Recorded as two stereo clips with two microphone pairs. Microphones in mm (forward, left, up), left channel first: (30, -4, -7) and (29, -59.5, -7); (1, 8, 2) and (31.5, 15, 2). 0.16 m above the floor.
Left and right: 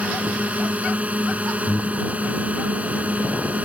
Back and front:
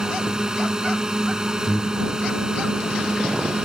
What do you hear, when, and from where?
0.0 s a drone: 40° right
1.7 s breathing: 150° left